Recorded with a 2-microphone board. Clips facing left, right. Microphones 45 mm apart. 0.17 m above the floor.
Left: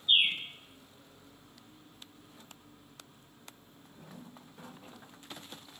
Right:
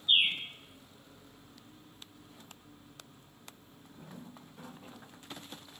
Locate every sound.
0.1 s a bird: centre (ahead or behind), 1.1 m